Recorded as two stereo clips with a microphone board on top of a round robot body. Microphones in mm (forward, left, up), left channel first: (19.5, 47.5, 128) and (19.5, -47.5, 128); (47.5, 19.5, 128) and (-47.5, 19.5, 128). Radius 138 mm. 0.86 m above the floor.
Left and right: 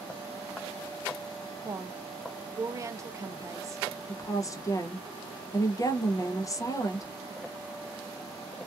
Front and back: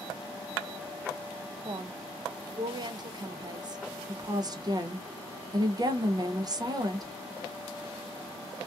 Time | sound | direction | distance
1.6 | a woman speaking | 145° right | 0.5 m
4.1 | a woman speaking | 140° left | 0.7 m